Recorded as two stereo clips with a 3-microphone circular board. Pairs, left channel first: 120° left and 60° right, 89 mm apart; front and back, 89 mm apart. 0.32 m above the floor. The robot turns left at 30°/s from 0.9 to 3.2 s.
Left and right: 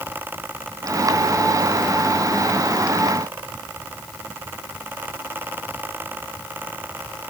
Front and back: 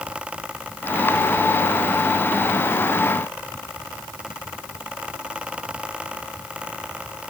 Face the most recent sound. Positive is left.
No sound to turn to.